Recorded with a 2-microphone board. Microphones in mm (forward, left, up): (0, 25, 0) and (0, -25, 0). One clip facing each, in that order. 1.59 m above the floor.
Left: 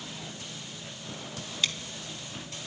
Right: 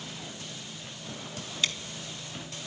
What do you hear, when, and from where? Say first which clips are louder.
1.6 s scissors: even; 5° left (ahead or behind), 1.6 m